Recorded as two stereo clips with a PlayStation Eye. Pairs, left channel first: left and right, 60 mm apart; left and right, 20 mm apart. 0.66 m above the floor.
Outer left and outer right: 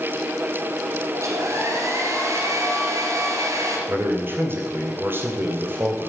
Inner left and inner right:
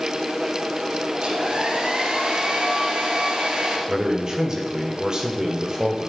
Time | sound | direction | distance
1.1 | a hair dryer | 60° right (ahead or behind) | 3.5 m
3.9 | a man speaking | 40° right (ahead or behind) | 3 m